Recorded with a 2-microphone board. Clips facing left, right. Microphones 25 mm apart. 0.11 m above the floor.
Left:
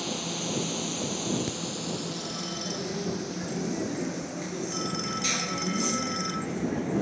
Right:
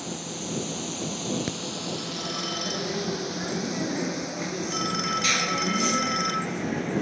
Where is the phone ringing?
25° right (ahead or behind).